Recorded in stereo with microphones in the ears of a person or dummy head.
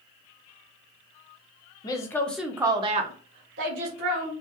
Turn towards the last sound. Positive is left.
turn(degrees=-80)